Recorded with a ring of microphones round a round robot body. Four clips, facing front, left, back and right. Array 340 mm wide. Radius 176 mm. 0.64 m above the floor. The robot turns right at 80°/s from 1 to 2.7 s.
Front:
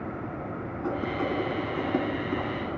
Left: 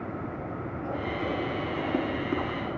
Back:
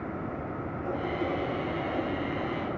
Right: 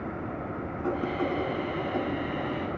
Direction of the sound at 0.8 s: 40° right.